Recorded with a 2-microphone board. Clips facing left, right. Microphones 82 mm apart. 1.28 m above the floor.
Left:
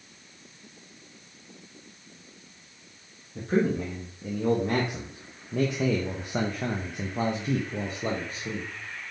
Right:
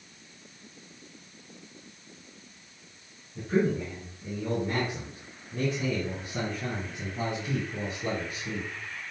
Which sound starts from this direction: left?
A man speaking, at 3.4 s.